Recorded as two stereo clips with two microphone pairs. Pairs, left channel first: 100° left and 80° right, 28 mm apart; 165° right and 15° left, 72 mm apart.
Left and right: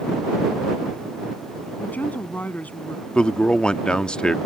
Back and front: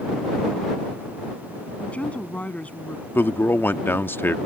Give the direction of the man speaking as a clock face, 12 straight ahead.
7 o'clock.